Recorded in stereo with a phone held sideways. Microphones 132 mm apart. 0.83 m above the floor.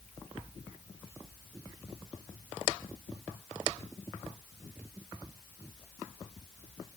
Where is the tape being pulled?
I don't hear tape being pulled.